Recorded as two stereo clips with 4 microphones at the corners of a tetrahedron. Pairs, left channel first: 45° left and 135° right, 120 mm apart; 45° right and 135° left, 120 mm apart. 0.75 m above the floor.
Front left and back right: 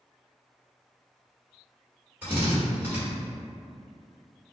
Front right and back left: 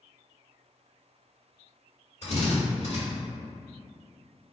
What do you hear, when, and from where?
2.2 s a drill: 60° right, 1.9 m